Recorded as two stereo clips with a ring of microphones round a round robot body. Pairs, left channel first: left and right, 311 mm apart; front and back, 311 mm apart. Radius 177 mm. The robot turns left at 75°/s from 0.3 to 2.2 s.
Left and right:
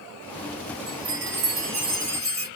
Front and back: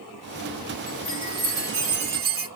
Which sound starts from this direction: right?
A chime, at 0.9 s.